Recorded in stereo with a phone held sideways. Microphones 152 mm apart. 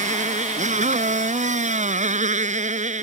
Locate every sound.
0.0 s a motorcycle: 50° right (ahead or behind)